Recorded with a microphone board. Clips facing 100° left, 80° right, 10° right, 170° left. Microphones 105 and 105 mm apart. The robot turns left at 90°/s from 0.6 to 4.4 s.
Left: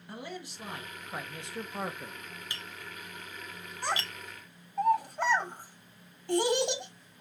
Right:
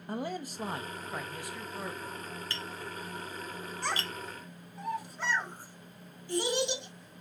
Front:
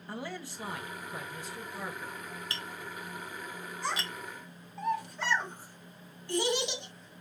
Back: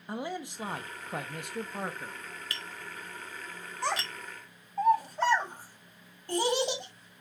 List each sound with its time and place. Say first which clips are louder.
0.1 s a man speaking: right 6 dB, back 4 dB; 120° right, 0.7 m; by 2.2 s 95° left, 0.7 m
2.5 s tapping: right 5 dB, front 1 dB; 30° left, 1.0 m; by 4.1 s 115° right, 1.0 m
3.8 s a child speaking: left 2 dB, back 4 dB; straight behind, 2.0 m; by 7.2 s 130° left, 2.0 m